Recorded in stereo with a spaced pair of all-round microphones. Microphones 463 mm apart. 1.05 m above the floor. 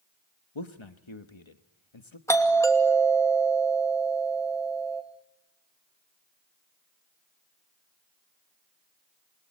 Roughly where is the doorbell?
Centre.